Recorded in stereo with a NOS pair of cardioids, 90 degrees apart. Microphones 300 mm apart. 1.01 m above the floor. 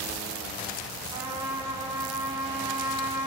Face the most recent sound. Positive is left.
turn(degrees=-20)